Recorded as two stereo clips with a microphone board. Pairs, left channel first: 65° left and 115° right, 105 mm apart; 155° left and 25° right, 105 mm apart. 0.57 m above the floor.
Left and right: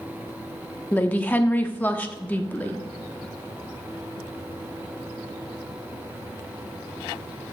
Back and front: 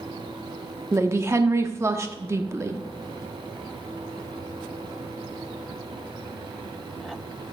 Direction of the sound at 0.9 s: 10° left.